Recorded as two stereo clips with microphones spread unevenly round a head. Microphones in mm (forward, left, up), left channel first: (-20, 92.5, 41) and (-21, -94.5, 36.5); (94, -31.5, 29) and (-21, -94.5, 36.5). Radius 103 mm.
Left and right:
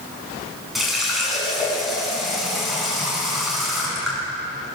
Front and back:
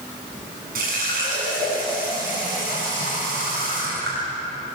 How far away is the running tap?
About 7 m.